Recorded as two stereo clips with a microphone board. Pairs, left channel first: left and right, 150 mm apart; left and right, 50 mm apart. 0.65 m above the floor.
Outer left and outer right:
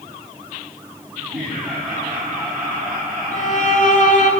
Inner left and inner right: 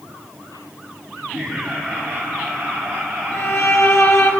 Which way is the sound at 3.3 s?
60° left (ahead or behind).